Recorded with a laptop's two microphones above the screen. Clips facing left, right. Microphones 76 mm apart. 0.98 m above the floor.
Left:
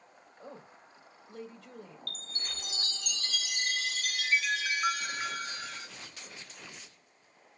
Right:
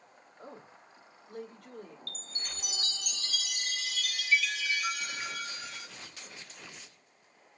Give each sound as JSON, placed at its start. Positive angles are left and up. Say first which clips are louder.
{"t": 0.4, "sound": "a woman speaking", "louder": "even", "side_deg": -65, "distance_m": 3.0}
{"t": 2.1, "sound": "a chime", "louder": "left 1 dB", "side_deg": 45, "distance_m": 0.7}